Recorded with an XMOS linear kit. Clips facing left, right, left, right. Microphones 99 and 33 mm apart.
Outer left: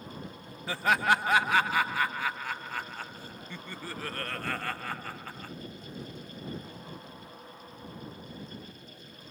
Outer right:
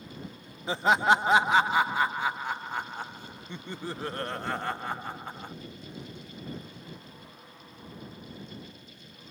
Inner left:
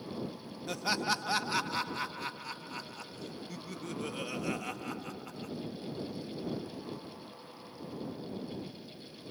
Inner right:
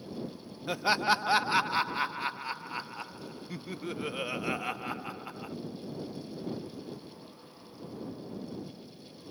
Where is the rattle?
No rattle in this recording.